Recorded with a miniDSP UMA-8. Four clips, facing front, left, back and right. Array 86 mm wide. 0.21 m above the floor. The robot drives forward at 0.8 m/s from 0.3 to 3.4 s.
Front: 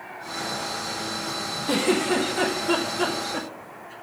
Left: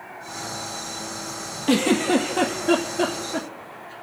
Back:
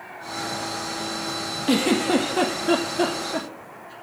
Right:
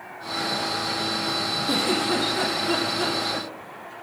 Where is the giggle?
125° left, 2 m; by 3.9 s 145° left, 3 m.